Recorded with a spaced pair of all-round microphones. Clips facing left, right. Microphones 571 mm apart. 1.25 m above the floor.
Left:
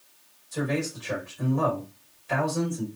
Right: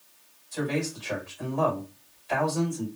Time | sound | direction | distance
0.5 | a man speaking | 65° left (ahead or behind) | 1.5 m